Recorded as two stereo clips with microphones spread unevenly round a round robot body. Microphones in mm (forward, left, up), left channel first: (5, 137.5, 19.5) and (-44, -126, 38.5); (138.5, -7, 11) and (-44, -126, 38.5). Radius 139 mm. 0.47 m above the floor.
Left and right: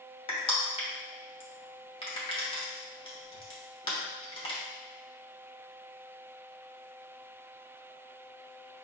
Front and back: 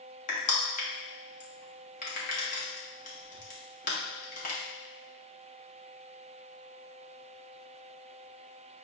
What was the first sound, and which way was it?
Crushing, 25° left.